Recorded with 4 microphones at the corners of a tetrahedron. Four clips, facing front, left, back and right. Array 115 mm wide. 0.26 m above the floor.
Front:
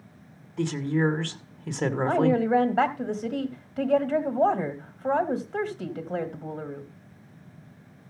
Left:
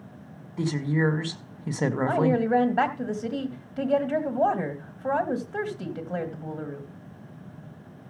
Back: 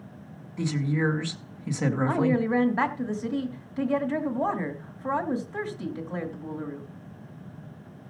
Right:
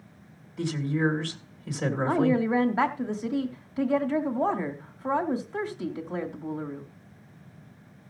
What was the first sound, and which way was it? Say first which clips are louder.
A woman speaking: left 2 dB, front 2 dB; 65° left.